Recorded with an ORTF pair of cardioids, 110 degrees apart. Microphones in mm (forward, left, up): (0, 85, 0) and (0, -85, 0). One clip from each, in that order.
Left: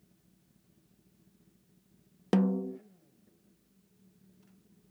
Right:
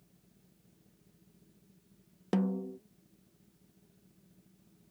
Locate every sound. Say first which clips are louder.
2.3 s a snare drum: left 4 dB; 25° left